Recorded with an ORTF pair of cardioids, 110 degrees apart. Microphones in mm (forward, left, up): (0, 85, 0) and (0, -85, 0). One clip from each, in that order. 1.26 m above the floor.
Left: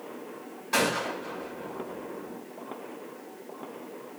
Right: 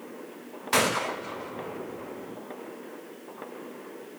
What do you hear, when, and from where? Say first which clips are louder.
0.7 s a gunshot: right 2 dB; 65° right, 2 m